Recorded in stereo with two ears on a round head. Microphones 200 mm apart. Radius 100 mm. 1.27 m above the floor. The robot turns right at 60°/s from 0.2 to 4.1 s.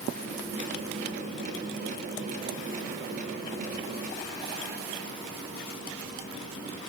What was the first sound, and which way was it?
Only background noise.